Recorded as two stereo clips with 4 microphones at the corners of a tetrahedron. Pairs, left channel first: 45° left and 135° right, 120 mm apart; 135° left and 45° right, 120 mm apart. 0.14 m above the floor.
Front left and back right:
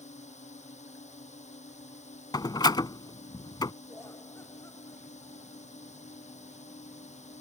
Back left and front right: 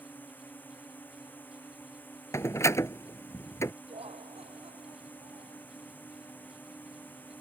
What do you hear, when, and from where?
0.0 s a drone: 60° left
2.3 s a door slam: 80° left
3.9 s laughter: 20° right